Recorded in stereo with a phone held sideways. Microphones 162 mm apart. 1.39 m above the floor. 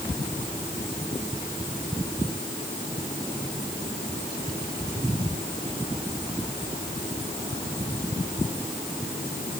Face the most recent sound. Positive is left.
No sound to turn to.